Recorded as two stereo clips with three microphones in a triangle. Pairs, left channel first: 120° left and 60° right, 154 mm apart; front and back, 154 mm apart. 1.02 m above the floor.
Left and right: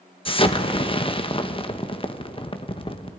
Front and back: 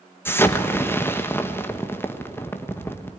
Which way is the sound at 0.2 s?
70° left.